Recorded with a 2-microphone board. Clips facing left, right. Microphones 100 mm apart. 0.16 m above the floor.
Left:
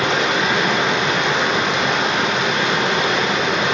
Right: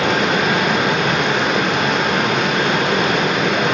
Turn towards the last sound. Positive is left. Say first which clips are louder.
# right 2 dB
turn(degrees=-55)  # may be behind; listen again after turning